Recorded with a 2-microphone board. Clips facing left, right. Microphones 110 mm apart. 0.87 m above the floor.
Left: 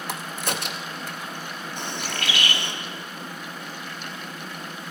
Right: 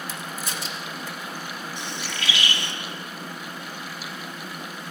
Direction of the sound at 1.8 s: 55° left (ahead or behind).